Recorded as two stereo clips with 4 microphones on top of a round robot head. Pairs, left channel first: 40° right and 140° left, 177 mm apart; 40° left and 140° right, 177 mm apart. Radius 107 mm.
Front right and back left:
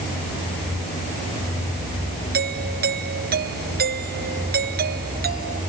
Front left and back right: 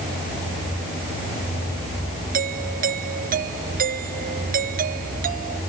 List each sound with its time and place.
2.3 s a doorbell: 175° left